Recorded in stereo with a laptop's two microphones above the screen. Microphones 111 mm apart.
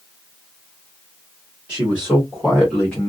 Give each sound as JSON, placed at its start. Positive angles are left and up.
{"t": 1.7, "sound": "a man speaking", "side_deg": -15, "distance_m": 1.4}